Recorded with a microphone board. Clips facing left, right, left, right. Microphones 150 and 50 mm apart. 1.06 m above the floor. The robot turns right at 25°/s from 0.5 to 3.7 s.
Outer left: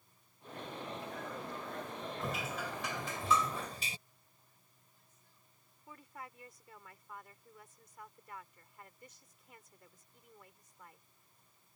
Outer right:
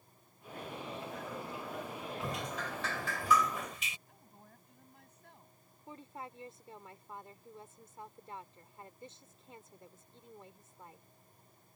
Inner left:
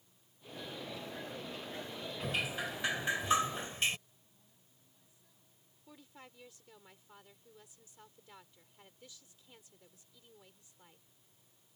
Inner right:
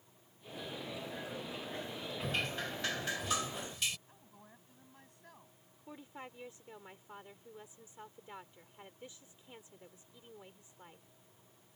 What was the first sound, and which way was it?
Dripping, straight ahead.